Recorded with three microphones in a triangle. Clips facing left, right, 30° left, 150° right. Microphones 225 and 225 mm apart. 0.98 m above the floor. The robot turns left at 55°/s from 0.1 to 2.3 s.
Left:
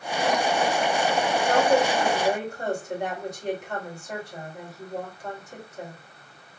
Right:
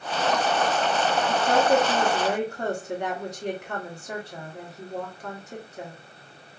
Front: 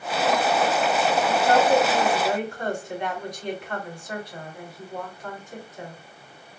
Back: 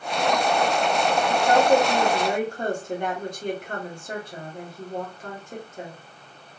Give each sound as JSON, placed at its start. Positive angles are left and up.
{"t": 1.3, "sound": "a woman speaking", "azimuth_deg": -55, "distance_m": 1.7}